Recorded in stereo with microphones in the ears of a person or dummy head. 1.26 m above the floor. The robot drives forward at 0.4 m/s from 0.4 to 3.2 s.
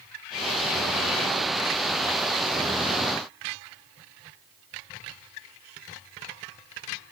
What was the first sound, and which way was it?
Only background noise.